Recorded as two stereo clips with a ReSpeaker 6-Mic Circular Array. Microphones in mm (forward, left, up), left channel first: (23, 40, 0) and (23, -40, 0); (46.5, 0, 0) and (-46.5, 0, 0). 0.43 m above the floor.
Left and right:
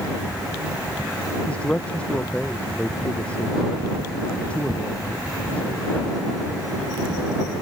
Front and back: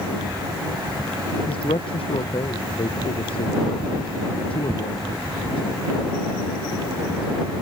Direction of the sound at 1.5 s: 15° left.